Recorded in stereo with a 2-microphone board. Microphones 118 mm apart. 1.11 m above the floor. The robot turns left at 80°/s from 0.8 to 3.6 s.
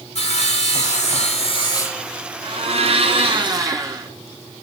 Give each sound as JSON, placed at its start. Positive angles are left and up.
{"t": 0.1, "sound": "sawing", "azimuth_deg": 110, "distance_m": 2.0}
{"t": 2.4, "sound": "a blender", "azimuth_deg": -50, "distance_m": 1.9}